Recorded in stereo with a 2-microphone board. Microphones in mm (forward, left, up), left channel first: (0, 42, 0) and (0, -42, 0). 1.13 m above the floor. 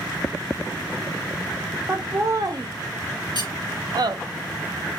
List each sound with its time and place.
1.9 s laughter: 25° right (ahead or behind), 0.6 m; by 4.2 s 55° right (ahead or behind), 0.9 m
3.4 s cutlery clinking: 75° right (ahead or behind), 3.5 m